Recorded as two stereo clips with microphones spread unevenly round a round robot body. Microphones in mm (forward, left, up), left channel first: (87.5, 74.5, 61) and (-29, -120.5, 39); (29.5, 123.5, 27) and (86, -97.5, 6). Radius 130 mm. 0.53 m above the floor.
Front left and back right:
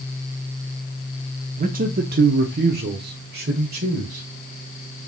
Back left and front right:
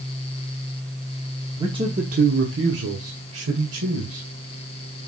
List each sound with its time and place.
1.6 s a man speaking: 140° right, 0.9 m; by 4.3 s 75° right, 2.5 m